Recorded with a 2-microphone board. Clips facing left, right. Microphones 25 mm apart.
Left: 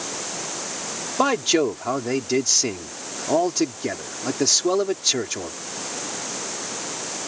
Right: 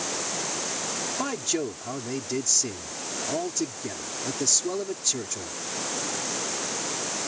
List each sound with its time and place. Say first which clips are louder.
1.2 s a man speaking: left 12 dB; 45° left (ahead or behind)